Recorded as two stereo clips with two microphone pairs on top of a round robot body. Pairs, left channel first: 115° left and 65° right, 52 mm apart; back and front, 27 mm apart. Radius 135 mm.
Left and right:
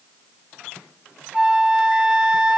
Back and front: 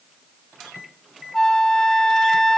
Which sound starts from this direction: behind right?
A flute, at 1.3 s.